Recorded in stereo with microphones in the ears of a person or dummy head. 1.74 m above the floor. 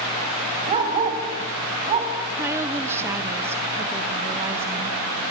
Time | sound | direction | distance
0.7 | a dog barking | 35° right (ahead or behind) | 3 m
2.4 | a woman speaking | 15° right (ahead or behind) | 1.1 m